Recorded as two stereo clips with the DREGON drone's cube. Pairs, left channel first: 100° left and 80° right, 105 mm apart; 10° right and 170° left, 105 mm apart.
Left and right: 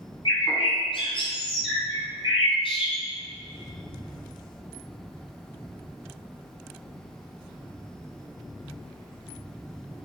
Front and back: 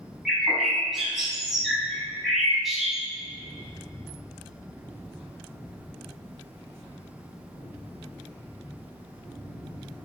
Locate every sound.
0.2 s a bird: 80° left, 3 m